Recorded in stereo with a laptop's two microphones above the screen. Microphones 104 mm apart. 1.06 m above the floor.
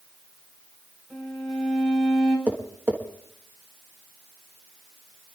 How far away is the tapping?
About 1.4 m.